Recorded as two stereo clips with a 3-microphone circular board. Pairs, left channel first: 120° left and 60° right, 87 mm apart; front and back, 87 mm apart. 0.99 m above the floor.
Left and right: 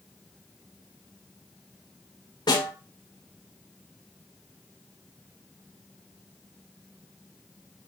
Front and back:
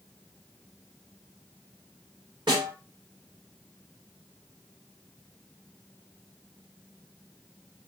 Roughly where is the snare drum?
Behind left.